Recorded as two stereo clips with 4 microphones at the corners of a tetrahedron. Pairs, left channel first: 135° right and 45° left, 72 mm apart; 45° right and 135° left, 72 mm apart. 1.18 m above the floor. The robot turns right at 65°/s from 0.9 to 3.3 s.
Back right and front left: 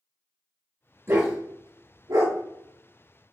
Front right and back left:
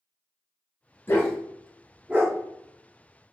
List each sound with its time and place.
1.1 s a dog barking: straight ahead, 1.2 m; by 2.4 s 85° left, 1.2 m